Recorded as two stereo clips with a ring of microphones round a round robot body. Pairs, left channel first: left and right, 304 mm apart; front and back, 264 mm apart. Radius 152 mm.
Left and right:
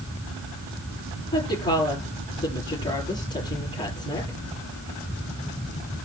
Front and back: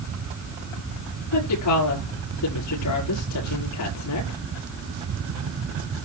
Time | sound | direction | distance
1.3 | a woman speaking | 15° left | 7 m